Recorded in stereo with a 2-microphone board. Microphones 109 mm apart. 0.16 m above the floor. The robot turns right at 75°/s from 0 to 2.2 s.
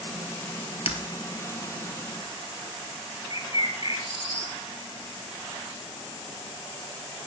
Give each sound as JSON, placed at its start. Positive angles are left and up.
{"t": 0.9, "sound": "breaking glass", "side_deg": 60, "distance_m": 1.6}
{"t": 3.3, "sound": "a bird", "side_deg": 55, "distance_m": 2.5}